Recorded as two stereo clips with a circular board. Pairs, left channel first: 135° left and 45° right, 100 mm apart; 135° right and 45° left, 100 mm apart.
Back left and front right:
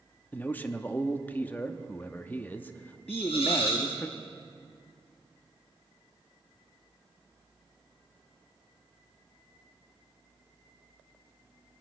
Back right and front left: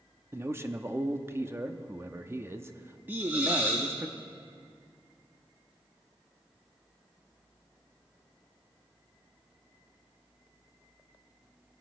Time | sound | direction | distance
0.3 | a man speaking | 80° left | 0.8 m
3.1 | a hiss | 120° left | 6 m